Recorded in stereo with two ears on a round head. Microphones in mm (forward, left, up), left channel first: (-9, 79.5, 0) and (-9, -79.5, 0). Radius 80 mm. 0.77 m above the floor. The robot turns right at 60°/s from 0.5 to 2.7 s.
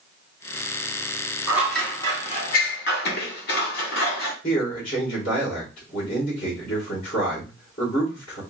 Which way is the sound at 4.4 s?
45° left (ahead or behind).